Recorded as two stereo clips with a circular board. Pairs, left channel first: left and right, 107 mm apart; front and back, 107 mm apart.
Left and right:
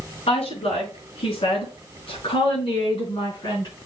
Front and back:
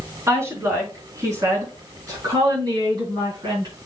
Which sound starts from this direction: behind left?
A woman speaking, at 0.3 s.